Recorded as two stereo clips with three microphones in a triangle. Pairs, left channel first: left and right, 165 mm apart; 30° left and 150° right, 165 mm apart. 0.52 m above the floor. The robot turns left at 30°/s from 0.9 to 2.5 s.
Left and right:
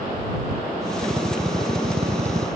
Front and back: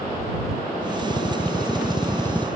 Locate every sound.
1.0 s a drill: 10° right; by 2.5 s 50° right